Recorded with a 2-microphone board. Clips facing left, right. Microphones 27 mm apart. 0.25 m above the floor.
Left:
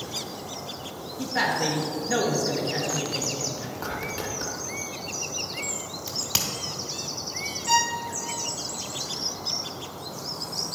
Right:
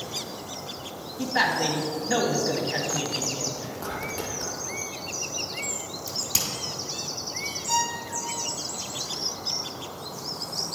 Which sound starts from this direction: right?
A man speaking, at 1.2 s.